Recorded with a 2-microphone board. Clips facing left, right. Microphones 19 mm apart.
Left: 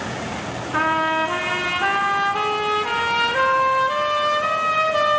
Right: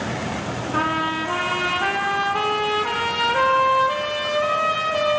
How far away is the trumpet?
About 1.4 m.